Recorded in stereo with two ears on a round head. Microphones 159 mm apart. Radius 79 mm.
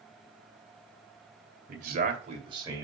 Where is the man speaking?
55° right (ahead or behind), 2 m; by 2.8 s 20° right (ahead or behind), 2.0 m.